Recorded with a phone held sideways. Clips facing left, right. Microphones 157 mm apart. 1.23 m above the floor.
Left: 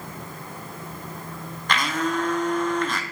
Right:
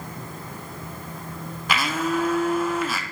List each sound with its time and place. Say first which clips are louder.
1.7 s a blender: right 1 dB; 5° right (ahead or behind), 0.6 m